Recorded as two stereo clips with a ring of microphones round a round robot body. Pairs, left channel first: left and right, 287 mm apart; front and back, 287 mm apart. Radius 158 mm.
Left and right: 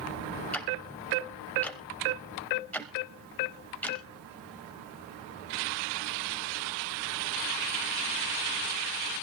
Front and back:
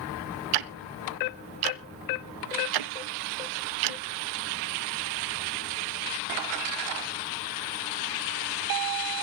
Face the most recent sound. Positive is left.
turn(degrees=175)